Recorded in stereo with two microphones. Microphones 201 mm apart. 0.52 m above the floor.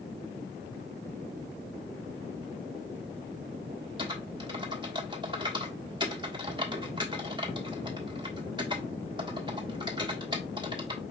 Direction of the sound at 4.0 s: 20° right (ahead or behind).